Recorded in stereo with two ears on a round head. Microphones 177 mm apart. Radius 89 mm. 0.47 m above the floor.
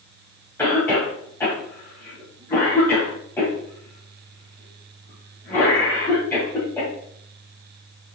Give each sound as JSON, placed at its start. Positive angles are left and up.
{"t": 0.6, "sound": "a cough", "side_deg": 10, "distance_m": 3.0}